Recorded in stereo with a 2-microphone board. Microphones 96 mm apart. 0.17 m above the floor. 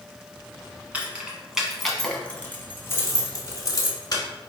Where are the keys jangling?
15° right (ahead or behind), 1.1 m; by 4.2 s 45° left (ahead or behind), 1.3 m.